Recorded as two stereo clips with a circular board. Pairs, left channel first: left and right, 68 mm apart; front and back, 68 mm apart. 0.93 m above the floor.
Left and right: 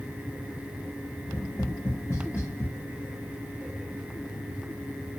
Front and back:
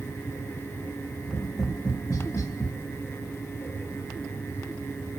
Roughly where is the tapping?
Ahead left.